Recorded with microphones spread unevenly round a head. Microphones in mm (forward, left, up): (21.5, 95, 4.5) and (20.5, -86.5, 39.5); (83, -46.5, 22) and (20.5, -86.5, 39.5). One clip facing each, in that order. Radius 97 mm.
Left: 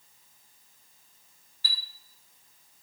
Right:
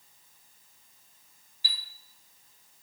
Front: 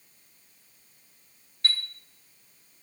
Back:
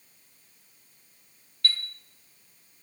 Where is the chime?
35° right, 1.7 m.